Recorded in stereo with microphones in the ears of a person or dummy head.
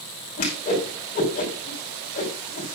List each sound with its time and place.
0.4 s a whoosh: 40° left (ahead or behind), 5.5 m